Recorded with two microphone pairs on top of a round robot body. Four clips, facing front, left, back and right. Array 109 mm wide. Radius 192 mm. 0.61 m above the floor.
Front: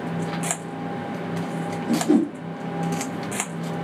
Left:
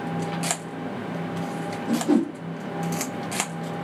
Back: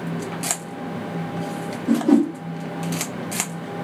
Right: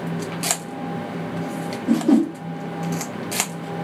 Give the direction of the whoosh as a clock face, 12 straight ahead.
5 o'clock.